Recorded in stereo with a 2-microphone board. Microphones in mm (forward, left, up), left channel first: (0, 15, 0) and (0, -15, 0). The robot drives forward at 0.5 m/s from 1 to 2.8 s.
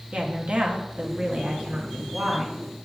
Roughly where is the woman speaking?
Right.